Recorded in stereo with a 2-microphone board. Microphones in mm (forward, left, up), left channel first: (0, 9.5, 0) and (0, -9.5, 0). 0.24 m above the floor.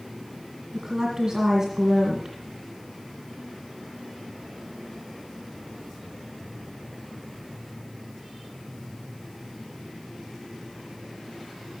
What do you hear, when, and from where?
0.7 s a woman speaking: 25° right (ahead or behind), 2 m